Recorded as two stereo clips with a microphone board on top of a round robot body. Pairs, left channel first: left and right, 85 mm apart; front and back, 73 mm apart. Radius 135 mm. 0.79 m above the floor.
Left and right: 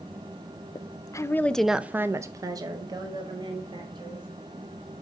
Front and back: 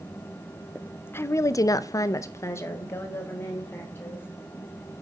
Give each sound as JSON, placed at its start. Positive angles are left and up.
{"t": 0.8, "sound": "a woman speaking", "azimuth_deg": 70, "distance_m": 0.6}